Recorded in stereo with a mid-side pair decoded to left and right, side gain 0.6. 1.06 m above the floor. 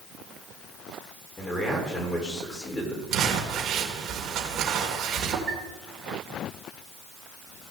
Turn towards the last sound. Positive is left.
turn(degrees=-30)